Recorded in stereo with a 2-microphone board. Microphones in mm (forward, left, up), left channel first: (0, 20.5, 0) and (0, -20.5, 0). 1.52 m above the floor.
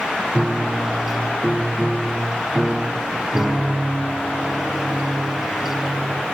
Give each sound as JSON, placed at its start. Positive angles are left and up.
{"t": 0.3, "sound": "a piano", "side_deg": -15, "distance_m": 0.6}